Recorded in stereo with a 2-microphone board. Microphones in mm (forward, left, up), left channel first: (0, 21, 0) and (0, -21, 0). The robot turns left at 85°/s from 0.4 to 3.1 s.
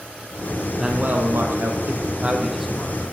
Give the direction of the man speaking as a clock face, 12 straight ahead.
1 o'clock.